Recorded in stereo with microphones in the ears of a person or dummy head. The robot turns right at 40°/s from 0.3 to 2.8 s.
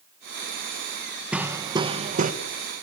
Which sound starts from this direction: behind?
Hammering, at 1.3 s.